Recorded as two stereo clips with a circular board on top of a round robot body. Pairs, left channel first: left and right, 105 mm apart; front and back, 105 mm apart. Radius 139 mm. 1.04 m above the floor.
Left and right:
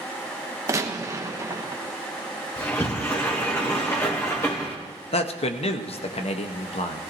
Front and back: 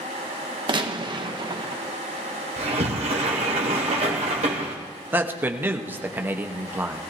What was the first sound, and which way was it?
A gunshot, 145° right.